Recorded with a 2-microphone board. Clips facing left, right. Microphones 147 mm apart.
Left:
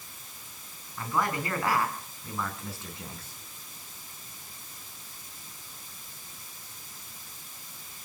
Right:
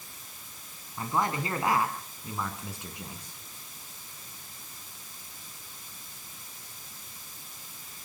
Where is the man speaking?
25° right (ahead or behind), 4.5 m; by 3.3 s 10° right (ahead or behind), 5.5 m.